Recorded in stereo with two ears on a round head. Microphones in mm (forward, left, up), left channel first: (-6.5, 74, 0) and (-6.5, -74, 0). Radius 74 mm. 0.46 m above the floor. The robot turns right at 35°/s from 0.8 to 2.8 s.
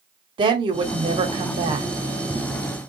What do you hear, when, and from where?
0.4 s a woman speaking: 110° right, 1.1 m; by 1.9 s 70° right, 1.1 m